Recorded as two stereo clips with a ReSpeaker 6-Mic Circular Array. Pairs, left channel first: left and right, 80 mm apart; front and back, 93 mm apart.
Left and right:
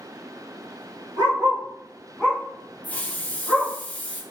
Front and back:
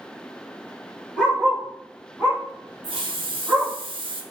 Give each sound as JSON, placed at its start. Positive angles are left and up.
{"t": 1.2, "sound": "a dog barking", "azimuth_deg": -100, "distance_m": 1.6}
{"t": 2.8, "sound": "a hiss", "azimuth_deg": 160, "distance_m": 0.5}